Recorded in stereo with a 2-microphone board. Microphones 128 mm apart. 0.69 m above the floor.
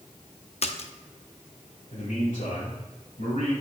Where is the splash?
50° left (ahead or behind), 0.6 m.